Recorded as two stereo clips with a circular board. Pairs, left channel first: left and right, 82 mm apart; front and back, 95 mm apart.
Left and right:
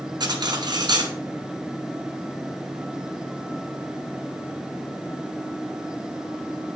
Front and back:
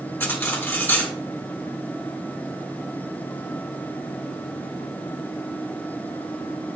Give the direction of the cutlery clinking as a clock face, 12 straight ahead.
2 o'clock.